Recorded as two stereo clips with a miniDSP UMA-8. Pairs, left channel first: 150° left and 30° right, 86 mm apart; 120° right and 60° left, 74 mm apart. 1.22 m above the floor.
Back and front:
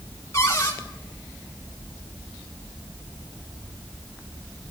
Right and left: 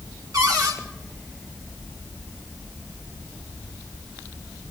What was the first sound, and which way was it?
A cupboard door, 95° left.